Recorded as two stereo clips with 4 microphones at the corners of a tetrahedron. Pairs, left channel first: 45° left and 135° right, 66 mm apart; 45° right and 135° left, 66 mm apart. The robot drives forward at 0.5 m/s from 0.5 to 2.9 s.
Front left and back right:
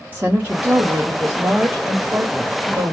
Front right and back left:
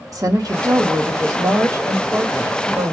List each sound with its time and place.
0.1 s a woman speaking: 160° left, 1.0 m; by 2.9 s 170° left, 2 m